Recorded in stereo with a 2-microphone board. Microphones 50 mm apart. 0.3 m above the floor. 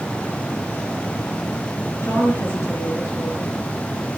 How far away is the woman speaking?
About 5.5 m.